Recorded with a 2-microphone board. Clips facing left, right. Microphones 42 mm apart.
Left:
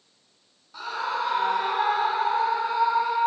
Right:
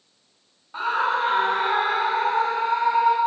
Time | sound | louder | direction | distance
0.7 | a scream | right 6 dB | 40° right (ahead or behind) | 2 m